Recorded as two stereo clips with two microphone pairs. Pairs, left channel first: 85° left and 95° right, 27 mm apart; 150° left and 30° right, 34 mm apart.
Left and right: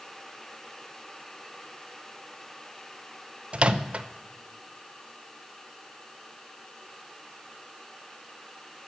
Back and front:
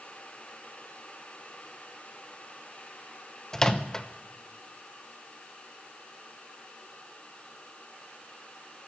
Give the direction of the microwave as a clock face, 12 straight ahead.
4 o'clock.